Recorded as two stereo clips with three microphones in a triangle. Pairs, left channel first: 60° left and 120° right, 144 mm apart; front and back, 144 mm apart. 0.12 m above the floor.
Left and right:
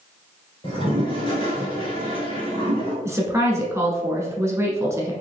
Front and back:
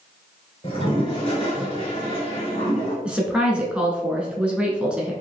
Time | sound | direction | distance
0.6 | a toilet flushing | 25° left | 1.4 m
3.0 | a woman speaking | 110° right | 1.0 m